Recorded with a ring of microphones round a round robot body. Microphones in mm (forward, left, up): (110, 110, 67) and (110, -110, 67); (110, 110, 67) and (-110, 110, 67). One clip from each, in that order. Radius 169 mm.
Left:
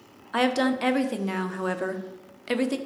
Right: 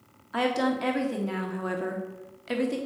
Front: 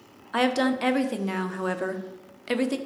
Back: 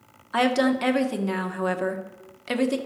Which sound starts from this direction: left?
A woman speaking, at 0.3 s.